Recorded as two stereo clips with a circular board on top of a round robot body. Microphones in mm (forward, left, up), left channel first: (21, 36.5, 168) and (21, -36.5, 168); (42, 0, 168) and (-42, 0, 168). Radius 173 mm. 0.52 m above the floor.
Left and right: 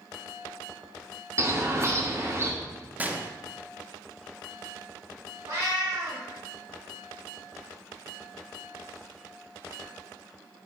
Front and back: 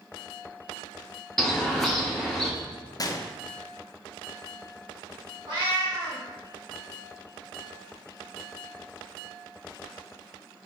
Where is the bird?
80° right, 1.2 m.